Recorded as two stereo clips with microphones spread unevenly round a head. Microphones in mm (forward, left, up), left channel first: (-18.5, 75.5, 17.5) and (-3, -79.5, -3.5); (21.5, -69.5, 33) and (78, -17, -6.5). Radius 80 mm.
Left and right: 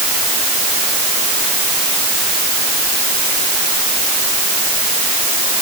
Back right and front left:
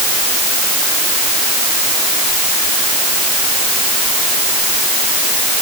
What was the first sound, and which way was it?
Only background noise.